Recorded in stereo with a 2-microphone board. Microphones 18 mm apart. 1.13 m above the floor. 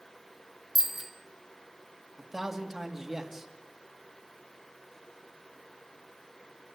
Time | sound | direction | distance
0.8 | a bicycle bell | 20° right (ahead or behind) | 3 m
2.2 | a man speaking | 20° right (ahead or behind) | 2.5 m